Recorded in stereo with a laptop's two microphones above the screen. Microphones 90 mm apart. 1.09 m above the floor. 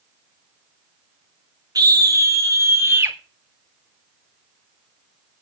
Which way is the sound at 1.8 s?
45° right (ahead or behind).